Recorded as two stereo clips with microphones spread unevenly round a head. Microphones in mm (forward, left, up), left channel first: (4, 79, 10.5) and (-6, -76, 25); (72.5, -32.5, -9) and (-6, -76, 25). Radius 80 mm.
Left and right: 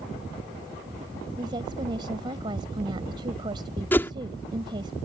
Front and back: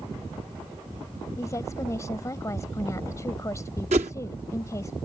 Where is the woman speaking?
30° right.